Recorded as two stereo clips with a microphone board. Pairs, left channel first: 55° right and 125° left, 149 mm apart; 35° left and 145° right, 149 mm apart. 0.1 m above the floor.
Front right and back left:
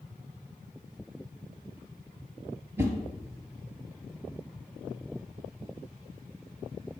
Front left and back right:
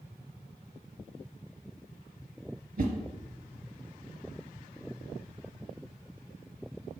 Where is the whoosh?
160° right, 0.5 m.